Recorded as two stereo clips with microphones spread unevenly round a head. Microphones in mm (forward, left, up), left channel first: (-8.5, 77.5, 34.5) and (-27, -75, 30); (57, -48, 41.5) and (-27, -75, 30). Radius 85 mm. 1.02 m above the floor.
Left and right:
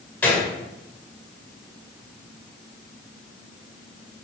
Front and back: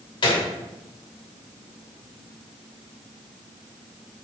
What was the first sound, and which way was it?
A gunshot, 5° left.